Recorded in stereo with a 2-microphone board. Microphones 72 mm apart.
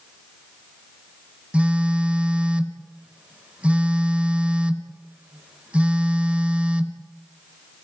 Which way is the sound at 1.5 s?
20° right (ahead or behind).